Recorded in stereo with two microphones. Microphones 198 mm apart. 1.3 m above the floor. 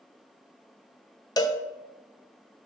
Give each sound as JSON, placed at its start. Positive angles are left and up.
{"t": 1.4, "sound": "a cowbell", "side_deg": 20, "distance_m": 0.6}